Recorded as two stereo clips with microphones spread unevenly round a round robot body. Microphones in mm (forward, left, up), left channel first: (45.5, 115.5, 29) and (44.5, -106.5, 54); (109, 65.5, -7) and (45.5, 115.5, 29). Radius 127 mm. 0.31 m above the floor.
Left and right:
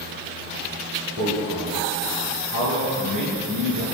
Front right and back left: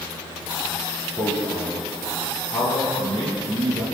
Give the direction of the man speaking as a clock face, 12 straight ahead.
5 o'clock.